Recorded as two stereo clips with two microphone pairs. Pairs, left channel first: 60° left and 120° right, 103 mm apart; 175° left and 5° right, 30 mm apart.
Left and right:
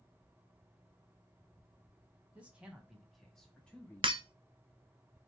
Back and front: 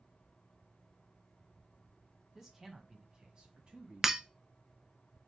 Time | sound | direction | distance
2.4 | a man speaking | 75° right | 1.3 m
4.0 | breaking glass | 85° right | 0.6 m